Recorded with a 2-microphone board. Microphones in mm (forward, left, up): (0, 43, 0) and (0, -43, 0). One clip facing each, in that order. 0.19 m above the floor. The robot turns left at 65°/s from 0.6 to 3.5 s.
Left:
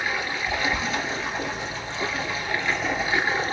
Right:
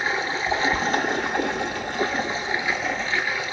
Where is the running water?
30° right, 1.0 m; by 3.5 s 140° left, 1.0 m.